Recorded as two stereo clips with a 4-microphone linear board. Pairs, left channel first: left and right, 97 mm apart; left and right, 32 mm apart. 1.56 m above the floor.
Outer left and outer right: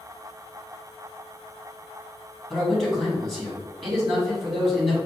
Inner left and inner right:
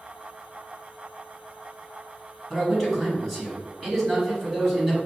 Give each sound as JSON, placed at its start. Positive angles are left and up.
{"t": 2.5, "sound": "a man speaking", "side_deg": 5, "distance_m": 1.8}